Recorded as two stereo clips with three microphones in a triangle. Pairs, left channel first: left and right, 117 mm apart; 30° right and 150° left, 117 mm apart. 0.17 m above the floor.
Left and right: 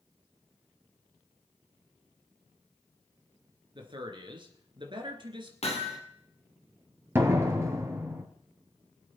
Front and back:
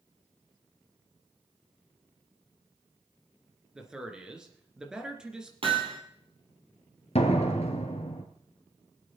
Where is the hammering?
110° left, 3 m.